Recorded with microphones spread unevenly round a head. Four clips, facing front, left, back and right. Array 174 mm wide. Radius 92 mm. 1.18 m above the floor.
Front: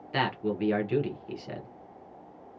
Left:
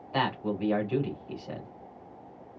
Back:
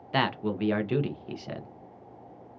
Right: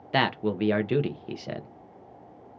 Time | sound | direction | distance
0.1 | a man speaking | 105° right | 0.7 m